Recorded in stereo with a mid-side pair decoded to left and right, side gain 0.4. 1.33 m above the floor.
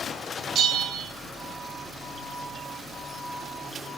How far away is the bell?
About 2 m.